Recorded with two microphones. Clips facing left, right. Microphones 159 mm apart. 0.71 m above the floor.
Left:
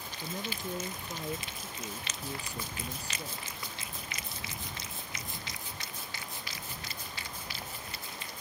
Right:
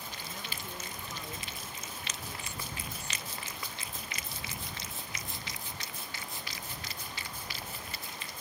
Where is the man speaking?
35° left (ahead or behind).